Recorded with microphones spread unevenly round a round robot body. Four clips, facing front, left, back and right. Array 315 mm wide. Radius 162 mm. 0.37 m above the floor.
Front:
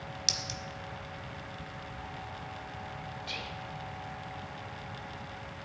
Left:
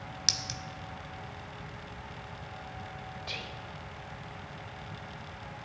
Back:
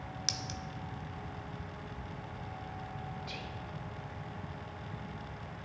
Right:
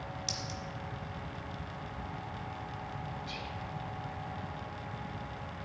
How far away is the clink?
About 1.0 m.